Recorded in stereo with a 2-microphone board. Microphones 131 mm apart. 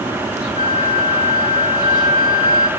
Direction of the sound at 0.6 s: 85° left.